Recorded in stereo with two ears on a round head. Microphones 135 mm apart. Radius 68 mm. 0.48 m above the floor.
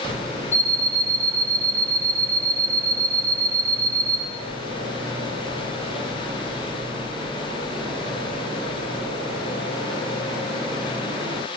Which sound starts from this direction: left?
An alarm clock, at 0.5 s.